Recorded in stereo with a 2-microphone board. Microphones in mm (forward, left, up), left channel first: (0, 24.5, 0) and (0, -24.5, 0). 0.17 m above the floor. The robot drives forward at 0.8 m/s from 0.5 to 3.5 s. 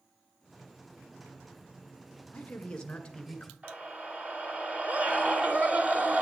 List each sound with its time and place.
2.3 s a man speaking: 25° left (ahead or behind), 1.3 m; by 3.5 s 15° left (ahead or behind), 1.9 m
3.6 s a scream: 35° right (ahead or behind), 2.5 m